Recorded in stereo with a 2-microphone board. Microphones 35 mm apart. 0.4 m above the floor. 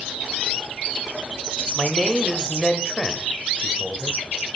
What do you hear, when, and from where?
1.8 s a man speaking: 15° left (ahead or behind), 1.2 m